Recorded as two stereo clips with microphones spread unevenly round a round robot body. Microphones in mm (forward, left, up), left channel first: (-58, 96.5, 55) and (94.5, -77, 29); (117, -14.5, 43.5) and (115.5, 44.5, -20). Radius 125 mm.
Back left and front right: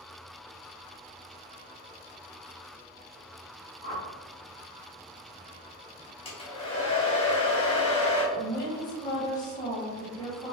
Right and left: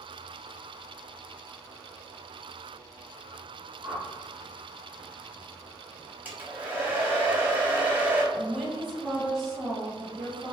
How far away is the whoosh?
About 1.2 m.